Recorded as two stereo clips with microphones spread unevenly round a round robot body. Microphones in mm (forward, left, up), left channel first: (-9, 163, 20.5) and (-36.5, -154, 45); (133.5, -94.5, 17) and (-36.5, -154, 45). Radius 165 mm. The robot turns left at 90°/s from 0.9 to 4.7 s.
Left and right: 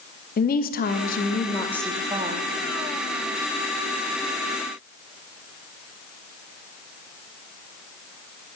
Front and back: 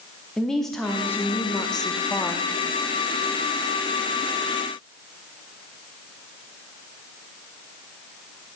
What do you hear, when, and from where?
0.4 s a woman speaking: 90° left, 0.7 m; by 2.5 s 55° right, 0.7 m